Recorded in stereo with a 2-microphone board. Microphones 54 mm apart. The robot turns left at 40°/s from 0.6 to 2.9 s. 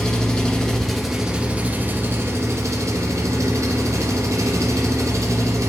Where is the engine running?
15° left, 1.1 m; by 5.7 s 80° right, 1.1 m.